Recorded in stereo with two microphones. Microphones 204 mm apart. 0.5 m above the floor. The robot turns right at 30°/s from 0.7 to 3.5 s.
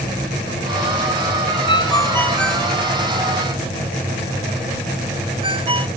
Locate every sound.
1.7 s a ringtone: 25° left (ahead or behind); by 5.9 s 30° right (ahead or behind)